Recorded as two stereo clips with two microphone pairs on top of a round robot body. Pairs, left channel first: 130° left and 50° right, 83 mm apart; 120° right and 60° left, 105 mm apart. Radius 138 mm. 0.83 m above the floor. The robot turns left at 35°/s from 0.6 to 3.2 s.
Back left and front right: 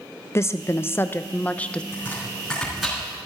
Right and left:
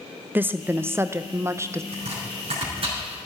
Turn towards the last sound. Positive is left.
turn(degrees=25)